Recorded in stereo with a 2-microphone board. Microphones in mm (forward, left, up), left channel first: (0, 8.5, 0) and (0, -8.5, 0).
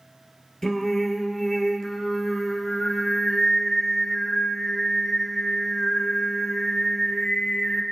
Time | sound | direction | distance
0.6 | singing | 20° left (ahead or behind) | 1.8 m